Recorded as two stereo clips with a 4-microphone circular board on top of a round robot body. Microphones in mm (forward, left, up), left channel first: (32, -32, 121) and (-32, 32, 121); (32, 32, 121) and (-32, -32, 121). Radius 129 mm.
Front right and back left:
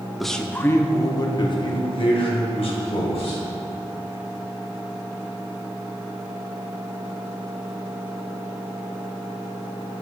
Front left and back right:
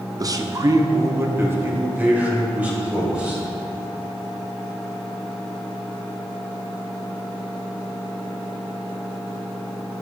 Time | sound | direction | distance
0.2 | a man speaking | 135° right | 0.9 m